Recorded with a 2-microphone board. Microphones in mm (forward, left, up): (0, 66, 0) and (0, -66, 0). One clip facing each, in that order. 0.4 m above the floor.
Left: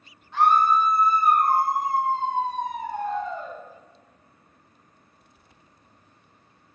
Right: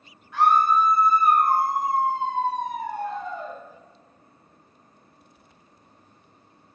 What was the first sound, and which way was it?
A scream, 30° left (ahead or behind).